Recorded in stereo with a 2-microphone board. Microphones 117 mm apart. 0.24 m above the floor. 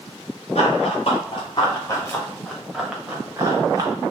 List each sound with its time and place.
0.6 s running footsteps: 60° left (ahead or behind), 2.5 m; by 3.9 s 35° right (ahead or behind), 2 m